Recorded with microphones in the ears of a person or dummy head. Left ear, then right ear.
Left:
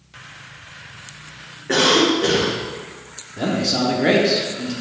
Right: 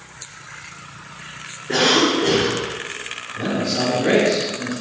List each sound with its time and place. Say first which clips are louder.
1.7 s a cough: left 1 dB; 40° left (ahead or behind), 1.2 m
3.4 s a man speaking: left 2 dB; 55° left (ahead or behind), 0.9 m